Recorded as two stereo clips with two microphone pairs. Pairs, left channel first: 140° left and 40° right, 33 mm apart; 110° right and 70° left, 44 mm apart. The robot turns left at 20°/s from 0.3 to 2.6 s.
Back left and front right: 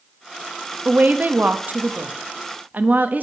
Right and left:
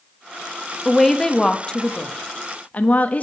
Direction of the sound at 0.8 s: 20° right.